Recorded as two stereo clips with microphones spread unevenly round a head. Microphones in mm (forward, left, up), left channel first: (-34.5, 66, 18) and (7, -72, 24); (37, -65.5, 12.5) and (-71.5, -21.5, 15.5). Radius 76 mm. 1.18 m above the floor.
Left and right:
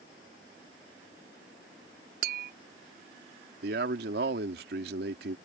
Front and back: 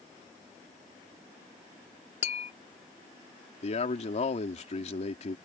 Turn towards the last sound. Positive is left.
turn(degrees=-50)